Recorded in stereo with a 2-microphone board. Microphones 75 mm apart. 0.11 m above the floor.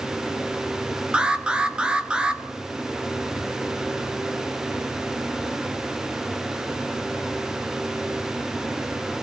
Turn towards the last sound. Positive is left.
turn(degrees=-15)  # may be behind; listen again after turning